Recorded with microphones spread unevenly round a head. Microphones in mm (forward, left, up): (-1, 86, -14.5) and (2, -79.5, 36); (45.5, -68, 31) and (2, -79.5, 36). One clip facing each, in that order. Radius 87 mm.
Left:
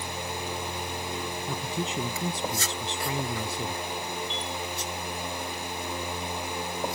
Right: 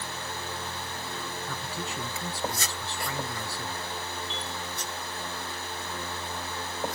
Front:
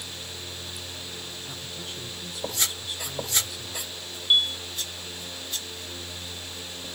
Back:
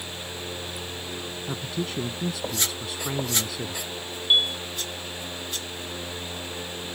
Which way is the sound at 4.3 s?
85° right.